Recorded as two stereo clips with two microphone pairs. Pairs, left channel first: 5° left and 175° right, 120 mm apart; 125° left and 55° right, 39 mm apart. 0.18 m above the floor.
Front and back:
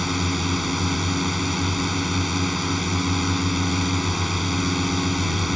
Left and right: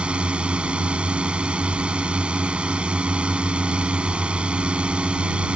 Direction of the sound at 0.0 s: 85° right.